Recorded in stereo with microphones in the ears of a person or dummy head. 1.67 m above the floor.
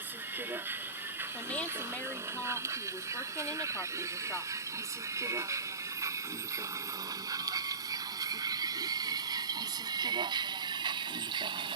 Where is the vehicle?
10° right (ahead or behind); by 11.8 s 25° right (ahead or behind).